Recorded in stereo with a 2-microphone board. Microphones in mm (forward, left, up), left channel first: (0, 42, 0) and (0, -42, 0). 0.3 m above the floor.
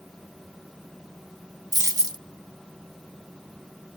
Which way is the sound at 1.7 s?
50° right (ahead or behind).